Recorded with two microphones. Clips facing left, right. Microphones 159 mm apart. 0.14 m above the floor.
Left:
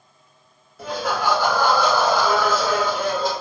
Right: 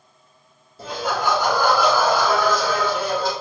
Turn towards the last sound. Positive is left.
turn(degrees=25)  # may be behind; listen again after turning